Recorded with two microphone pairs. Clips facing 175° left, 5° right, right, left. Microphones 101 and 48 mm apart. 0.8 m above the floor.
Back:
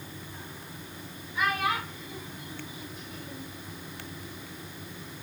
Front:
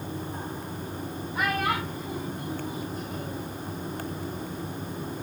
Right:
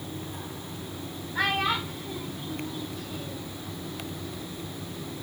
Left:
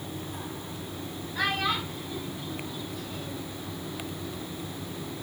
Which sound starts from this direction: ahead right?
A child speaking, at 1.4 s.